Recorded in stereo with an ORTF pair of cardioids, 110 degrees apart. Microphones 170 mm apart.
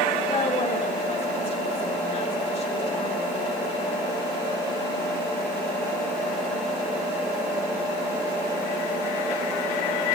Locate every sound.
0.3 s a woman speaking: 35° left, 3 m